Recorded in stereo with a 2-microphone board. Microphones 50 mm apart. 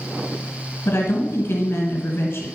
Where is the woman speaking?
55° left (ahead or behind), 2 m.